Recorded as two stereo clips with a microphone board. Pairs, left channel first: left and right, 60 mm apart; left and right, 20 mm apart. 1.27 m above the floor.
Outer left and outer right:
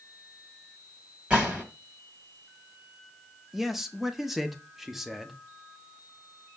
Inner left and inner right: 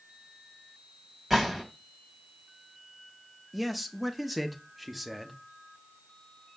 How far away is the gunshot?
About 1.3 m.